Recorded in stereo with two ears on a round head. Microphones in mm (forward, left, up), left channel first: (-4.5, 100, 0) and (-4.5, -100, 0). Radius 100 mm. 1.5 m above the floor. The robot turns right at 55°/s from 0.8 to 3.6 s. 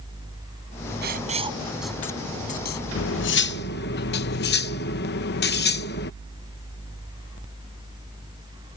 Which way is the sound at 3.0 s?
80° left.